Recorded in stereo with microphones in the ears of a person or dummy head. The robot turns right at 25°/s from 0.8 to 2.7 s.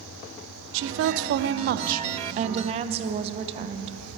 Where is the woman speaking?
80° right, 0.6 m; by 4.0 s 30° right, 0.6 m.